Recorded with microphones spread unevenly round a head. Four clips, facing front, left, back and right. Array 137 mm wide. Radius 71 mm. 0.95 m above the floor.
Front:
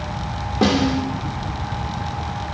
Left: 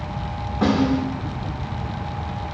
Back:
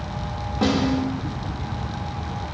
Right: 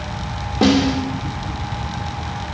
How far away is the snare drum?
About 3.5 m.